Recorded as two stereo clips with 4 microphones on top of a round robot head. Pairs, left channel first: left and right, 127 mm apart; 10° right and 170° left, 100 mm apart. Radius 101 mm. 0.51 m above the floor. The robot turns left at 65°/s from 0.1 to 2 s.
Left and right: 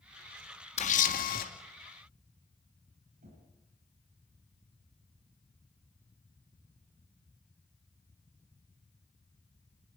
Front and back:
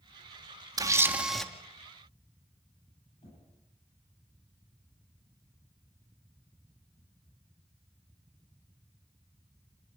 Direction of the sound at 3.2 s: 60° right.